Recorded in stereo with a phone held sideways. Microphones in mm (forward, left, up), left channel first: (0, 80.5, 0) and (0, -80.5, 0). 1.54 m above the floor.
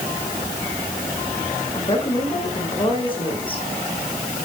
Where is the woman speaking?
30° left (ahead or behind), 8.5 m.